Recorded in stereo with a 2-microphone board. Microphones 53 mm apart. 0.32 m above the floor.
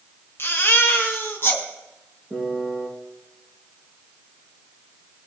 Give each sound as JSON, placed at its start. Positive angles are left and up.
{"t": 0.4, "sound": "a baby crying", "side_deg": 45, "distance_m": 2.5}
{"t": 2.3, "sound": "a piano", "side_deg": -5, "distance_m": 4.5}